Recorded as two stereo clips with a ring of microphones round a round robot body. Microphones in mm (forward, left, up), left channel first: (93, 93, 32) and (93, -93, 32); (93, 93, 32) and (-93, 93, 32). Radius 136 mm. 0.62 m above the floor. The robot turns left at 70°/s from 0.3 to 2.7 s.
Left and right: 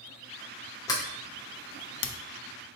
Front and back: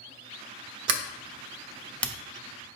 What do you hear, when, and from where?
0.9 s a sliding door: 165° left, 0.6 m; by 2.1 s 75° left, 0.6 m